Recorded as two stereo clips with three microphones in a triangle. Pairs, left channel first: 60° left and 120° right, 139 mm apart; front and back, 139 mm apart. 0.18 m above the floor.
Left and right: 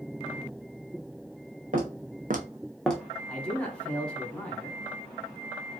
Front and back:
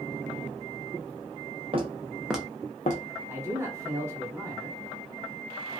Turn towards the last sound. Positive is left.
turn(degrees=135)